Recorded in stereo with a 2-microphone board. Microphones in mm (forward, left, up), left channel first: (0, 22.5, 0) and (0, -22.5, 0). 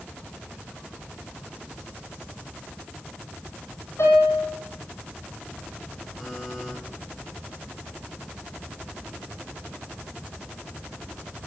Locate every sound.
4.0 s a piano: 85° left, 5 m
6.2 s a buzzer: centre (ahead or behind), 6 m